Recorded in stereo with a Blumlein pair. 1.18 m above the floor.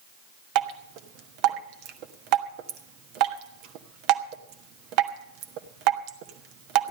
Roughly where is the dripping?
Ahead right.